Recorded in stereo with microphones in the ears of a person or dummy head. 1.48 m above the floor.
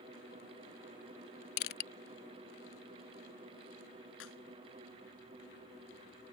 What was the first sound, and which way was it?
Crushing, 55° left (ahead or behind).